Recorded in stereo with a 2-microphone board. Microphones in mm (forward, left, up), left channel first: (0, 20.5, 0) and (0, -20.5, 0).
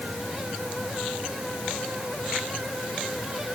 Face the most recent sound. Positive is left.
No sound to turn to.